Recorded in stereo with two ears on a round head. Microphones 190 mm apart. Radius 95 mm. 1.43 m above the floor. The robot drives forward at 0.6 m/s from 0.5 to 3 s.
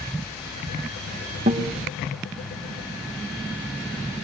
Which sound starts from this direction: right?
A guitar, at 1.5 s.